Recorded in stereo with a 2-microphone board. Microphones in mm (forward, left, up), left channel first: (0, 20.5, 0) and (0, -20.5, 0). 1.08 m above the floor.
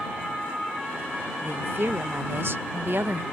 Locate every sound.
1.4 s a woman speaking: 60° right (ahead or behind)